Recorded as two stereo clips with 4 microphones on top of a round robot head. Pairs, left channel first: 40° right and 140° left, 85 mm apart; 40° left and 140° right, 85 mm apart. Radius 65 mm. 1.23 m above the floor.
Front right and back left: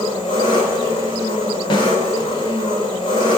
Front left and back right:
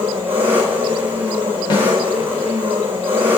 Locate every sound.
0.0 s an engine running: 75° right, 3 m
1.7 s a snare drum: straight ahead, 2.5 m